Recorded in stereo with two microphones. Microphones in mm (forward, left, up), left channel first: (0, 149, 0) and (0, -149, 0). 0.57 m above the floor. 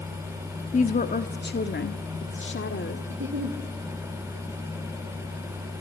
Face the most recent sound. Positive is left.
turn(degrees=-40)  # may be behind; listen again after turning